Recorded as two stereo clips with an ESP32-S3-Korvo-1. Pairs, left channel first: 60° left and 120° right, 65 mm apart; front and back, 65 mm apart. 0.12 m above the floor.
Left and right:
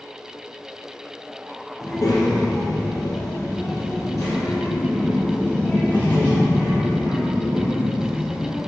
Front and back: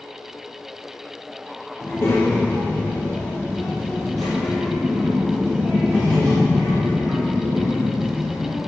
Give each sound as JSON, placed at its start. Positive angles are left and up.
{"t": 1.8, "sound": "a child speaking", "azimuth_deg": 45, "distance_m": 1.9}